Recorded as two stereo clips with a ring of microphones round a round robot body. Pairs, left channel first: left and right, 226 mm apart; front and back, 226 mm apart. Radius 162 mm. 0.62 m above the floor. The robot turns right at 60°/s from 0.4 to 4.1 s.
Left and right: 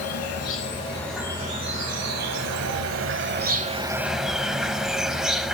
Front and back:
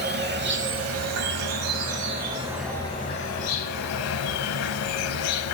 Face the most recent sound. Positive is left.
turn(degrees=0)